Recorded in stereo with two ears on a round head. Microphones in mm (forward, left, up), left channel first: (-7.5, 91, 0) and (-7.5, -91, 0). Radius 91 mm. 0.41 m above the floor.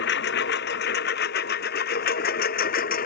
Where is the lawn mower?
55° left (ahead or behind); by 3.1 s 45° left (ahead or behind).